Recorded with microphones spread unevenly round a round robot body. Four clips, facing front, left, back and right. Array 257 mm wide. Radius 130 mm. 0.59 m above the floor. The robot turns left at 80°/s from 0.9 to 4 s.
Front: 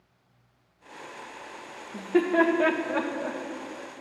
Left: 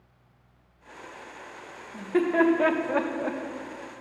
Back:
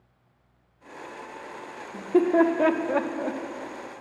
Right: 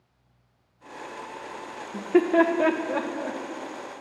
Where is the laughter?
105° right, 0.9 m; by 3.4 s 140° left, 0.9 m.